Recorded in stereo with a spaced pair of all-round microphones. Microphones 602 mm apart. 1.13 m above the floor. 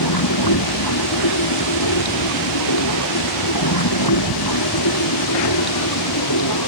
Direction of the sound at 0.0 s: 35° left (ahead or behind).